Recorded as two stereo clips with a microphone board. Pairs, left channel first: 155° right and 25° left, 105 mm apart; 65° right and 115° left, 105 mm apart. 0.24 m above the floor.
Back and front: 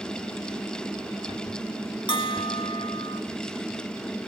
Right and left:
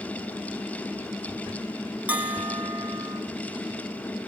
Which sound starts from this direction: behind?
A bell, at 2.1 s.